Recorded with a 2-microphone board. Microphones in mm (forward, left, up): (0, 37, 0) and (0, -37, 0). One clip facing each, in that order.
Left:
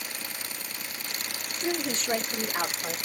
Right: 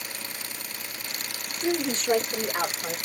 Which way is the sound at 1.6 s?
40° right (ahead or behind).